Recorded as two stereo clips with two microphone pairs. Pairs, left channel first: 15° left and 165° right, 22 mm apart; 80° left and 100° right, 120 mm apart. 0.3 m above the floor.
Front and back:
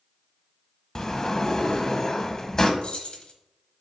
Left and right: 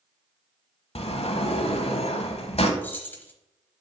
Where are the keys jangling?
15° left, 1.0 m.